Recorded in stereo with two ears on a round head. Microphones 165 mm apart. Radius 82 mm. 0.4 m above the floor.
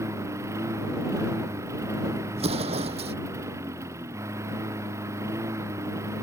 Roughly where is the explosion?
Right.